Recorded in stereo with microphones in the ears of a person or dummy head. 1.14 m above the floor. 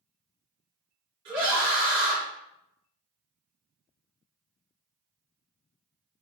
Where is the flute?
No flute in this recording.